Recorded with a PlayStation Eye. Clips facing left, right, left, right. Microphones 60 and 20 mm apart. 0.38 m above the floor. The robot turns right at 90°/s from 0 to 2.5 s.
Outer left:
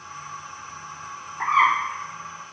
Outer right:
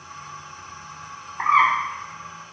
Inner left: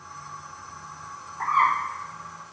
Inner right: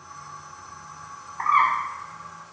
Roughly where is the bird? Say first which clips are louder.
Outer right 1 dB, inner right 2 dB; behind right.